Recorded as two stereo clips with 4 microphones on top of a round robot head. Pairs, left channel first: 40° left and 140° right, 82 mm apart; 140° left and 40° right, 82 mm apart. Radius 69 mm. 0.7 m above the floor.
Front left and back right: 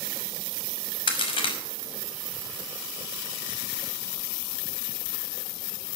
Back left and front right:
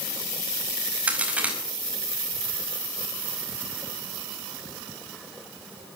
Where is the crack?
35° left, 5.5 m.